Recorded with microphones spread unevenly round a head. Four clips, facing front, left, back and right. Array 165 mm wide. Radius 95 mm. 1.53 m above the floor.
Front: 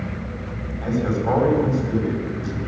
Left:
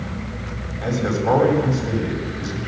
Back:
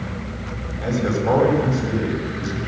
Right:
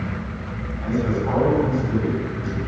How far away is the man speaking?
About 9 m.